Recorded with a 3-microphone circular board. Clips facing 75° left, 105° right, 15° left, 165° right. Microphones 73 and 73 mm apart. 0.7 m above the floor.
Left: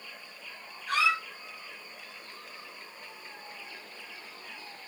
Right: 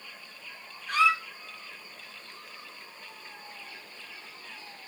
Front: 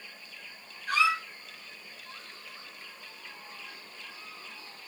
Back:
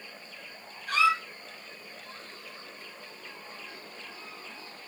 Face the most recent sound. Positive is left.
turn(degrees=75)